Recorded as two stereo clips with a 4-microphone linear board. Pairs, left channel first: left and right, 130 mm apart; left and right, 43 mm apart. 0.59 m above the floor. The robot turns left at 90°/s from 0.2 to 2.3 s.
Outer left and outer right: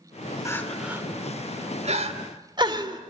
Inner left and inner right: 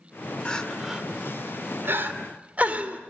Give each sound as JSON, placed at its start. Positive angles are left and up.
{"t": 0.5, "sound": "crying", "side_deg": 25, "distance_m": 2.5}